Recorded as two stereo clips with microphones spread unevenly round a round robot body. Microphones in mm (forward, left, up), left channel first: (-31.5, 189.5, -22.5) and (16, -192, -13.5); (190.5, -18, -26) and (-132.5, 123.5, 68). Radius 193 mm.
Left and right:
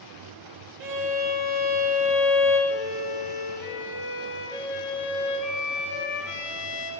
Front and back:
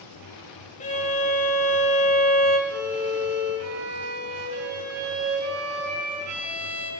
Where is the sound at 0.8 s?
45° right, 1.1 m.